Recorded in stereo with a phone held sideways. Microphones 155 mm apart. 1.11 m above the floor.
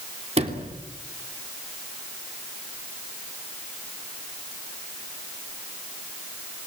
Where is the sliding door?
45° right (ahead or behind), 3 m.